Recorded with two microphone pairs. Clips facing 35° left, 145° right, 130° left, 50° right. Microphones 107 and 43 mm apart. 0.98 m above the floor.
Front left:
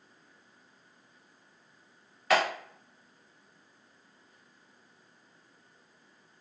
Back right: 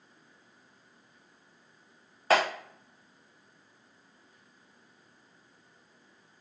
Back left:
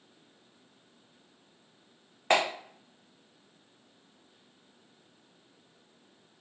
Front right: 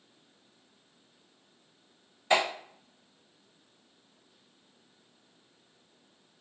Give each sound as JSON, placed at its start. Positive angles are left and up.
{"t": 2.3, "sound": "a clap", "azimuth_deg": 160, "distance_m": 1.7}